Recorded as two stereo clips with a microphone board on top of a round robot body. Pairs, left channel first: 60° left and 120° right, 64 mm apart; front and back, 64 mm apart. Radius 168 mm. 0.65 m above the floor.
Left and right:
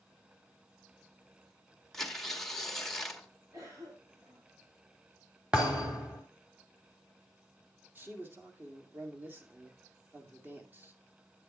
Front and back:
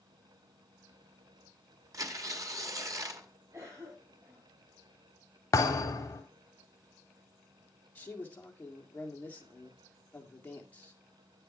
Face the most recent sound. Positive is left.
turn(degrees=-65)